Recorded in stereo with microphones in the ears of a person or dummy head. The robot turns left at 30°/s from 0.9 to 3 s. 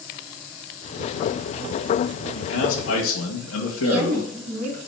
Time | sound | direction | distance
2.4 | a man speaking | 70° left (ahead or behind) | 1.5 m
3.8 | a woman speaking | 50° right (ahead or behind) | 1.9 m